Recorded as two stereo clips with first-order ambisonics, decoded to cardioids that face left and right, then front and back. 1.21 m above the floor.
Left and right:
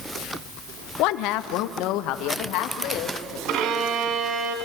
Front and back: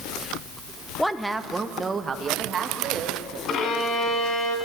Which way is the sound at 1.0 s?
85° left.